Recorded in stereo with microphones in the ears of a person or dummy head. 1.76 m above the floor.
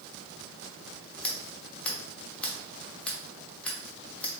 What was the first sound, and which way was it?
Scissors, 5° left (ahead or behind).